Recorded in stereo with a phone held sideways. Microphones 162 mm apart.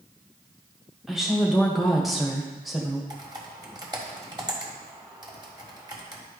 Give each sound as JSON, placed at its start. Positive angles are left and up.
{"t": 1.1, "sound": "a woman speaking", "side_deg": 0, "distance_m": 1.5}
{"t": 3.1, "sound": "typing on a keyboard", "side_deg": -25, "distance_m": 1.5}